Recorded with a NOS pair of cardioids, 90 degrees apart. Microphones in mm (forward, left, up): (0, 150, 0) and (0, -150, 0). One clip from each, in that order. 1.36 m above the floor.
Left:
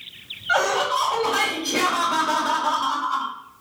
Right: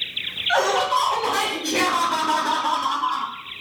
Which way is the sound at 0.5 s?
5° left.